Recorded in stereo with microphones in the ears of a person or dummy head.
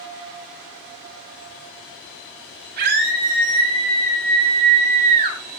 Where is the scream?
60° right (ahead or behind), 10 m; by 5.4 s 55° right (ahead or behind), 8 m.